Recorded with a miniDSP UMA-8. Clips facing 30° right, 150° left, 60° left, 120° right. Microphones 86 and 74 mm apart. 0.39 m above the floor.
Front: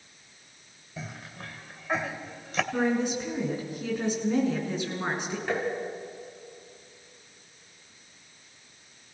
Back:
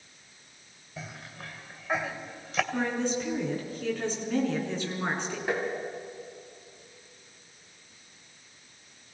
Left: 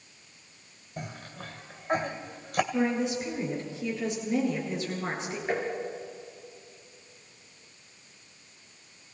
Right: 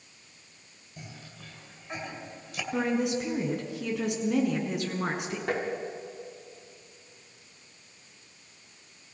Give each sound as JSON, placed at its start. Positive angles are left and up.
{"t": 1.0, "sound": "a cough", "azimuth_deg": 45, "distance_m": 2.0}
{"t": 2.7, "sound": "a woman speaking", "azimuth_deg": -105, "distance_m": 5.5}
{"t": 5.5, "sound": "tapping", "azimuth_deg": -130, "distance_m": 4.5}